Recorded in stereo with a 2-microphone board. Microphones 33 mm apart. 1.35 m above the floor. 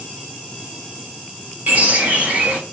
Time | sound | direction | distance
1.7 | a bird | 45° right (ahead or behind) | 3 m